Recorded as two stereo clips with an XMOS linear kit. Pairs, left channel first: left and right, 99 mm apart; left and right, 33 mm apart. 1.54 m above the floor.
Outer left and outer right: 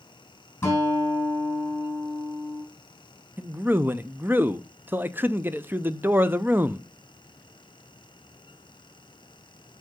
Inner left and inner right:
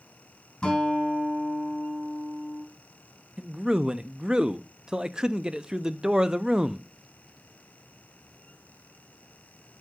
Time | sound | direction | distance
0.6 | a guitar | 25° left (ahead or behind) | 4 m
3.4 | a man speaking | 20° right (ahead or behind) | 0.5 m